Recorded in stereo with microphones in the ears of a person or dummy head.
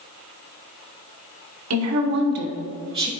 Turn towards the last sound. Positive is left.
turn(degrees=-25)  # may be behind; listen again after turning